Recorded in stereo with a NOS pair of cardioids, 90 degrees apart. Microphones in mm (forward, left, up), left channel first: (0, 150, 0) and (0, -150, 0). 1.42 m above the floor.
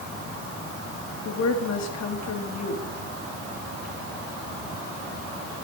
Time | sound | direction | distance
1.2 | a woman speaking | 60° left | 3.5 m